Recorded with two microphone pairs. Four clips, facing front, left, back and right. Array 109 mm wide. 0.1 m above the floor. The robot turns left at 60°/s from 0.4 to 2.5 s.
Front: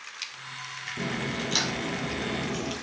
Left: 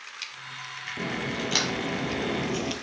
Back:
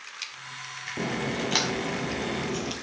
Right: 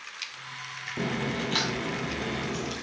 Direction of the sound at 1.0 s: 160° right.